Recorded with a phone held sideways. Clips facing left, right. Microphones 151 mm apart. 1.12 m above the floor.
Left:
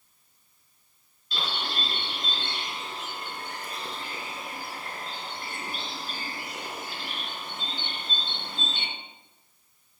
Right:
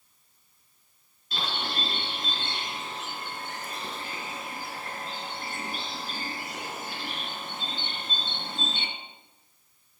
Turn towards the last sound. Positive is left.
turn(degrees=-45)  # may be behind; listen again after turning